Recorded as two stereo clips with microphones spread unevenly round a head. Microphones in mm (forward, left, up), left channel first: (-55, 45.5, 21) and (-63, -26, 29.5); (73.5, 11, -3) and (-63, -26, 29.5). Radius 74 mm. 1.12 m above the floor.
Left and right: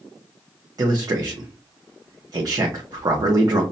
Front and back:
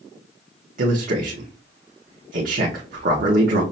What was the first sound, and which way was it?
A man speaking, 130° right.